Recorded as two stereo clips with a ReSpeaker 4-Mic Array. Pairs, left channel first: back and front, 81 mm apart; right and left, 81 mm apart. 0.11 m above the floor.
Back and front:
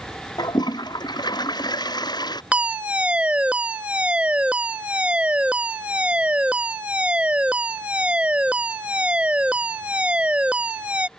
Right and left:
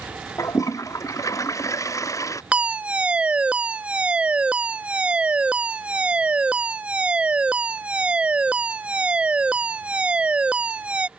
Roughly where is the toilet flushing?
Behind right.